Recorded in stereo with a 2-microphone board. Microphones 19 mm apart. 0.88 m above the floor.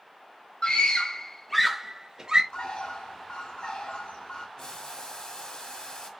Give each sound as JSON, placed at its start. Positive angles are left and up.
{"t": 0.6, "sound": "a scream", "side_deg": 55, "distance_m": 1.0}
{"t": 2.5, "sound": "a bird", "side_deg": 75, "distance_m": 1.2}
{"t": 4.6, "sound": "boiling", "side_deg": 60, "distance_m": 2.0}